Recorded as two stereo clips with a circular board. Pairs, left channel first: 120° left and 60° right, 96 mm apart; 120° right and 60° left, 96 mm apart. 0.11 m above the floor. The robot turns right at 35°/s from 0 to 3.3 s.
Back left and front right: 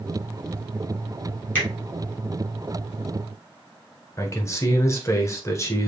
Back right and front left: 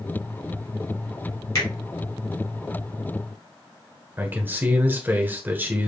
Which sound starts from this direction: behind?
A finger snap, at 1.6 s.